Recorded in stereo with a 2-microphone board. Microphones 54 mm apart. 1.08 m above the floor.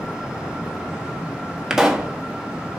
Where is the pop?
10° right (ahead or behind), 1.5 m.